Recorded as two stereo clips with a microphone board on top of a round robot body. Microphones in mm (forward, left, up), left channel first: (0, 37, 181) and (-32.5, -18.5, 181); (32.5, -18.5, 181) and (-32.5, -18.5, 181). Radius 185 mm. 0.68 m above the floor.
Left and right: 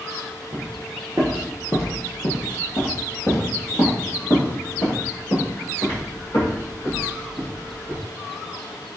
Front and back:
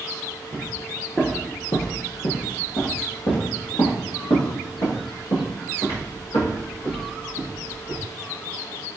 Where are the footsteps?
115° right, 0.7 m; by 8.0 s 15° left, 4 m.